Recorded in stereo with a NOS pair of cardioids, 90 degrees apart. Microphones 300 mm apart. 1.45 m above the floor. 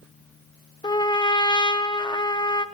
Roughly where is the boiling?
I don't hear boiling.